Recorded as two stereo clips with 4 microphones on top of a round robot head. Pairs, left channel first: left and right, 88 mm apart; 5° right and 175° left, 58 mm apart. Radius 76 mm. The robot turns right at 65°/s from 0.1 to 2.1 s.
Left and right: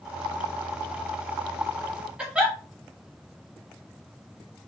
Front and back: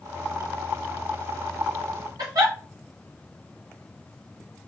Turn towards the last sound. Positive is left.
turn(degrees=-165)